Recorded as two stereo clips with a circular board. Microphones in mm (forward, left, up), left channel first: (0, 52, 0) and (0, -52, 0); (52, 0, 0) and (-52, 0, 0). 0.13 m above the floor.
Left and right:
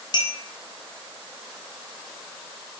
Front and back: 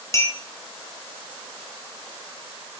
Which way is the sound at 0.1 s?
55° left.